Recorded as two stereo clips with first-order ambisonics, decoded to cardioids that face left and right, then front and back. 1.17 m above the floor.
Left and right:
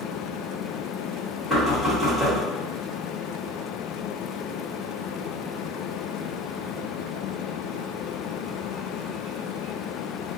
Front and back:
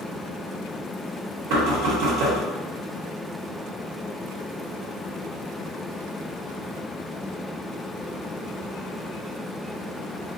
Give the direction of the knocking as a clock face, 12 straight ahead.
6 o'clock.